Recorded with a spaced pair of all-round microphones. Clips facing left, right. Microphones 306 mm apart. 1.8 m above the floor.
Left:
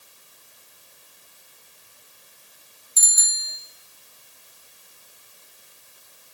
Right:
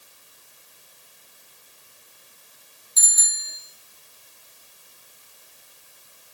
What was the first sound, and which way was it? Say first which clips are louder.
A bicycle bell: even; 25° right (ahead or behind).